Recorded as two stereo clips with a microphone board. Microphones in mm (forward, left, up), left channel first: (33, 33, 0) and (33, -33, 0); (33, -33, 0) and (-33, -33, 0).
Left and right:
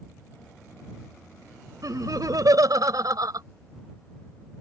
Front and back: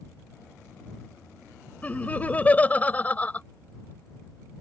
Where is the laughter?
65° right.